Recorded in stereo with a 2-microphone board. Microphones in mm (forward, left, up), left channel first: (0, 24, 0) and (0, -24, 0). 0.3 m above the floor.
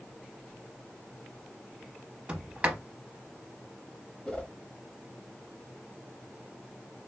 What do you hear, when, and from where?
2.3 s a sliding door: 30° right (ahead or behind), 0.7 m
4.2 s a whoosh: 15° left (ahead or behind), 1.3 m